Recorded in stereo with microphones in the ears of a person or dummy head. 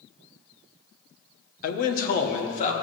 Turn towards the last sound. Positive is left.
turn(degrees=45)  # may be behind; listen again after turning